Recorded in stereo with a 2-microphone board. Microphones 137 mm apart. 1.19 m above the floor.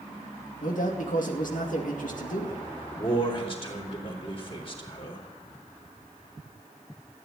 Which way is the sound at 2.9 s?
40° left (ahead or behind).